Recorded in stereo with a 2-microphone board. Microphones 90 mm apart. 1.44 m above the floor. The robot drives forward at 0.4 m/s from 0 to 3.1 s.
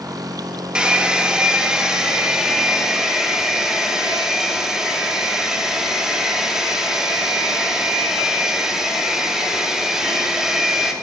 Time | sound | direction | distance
0.8 | a hair dryer | 10° right (ahead or behind) | 1.5 m